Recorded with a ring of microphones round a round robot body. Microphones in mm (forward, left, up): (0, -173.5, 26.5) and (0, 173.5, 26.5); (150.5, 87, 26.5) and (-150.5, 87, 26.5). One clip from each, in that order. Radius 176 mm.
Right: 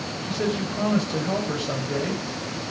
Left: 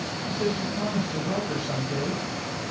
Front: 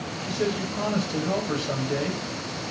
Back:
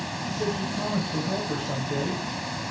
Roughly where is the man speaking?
Ahead right.